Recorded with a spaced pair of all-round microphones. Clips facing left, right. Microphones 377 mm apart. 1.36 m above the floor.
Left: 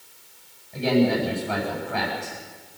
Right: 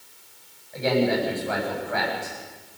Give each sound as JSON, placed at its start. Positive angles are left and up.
{"t": 0.7, "sound": "a man speaking", "side_deg": 45, "distance_m": 9.5}